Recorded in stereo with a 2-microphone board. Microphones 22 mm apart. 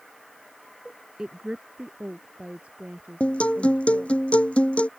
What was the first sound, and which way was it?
A woman speaking, 35° right (ahead or behind).